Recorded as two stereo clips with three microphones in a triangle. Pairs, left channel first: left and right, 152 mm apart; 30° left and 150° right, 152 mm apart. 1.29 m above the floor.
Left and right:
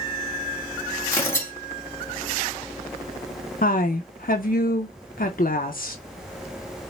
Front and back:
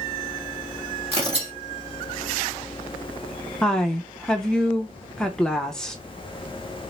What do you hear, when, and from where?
1.1 s tearing paper: 165° left, 1.8 m
3.6 s a woman speaking: 115° left, 0.7 m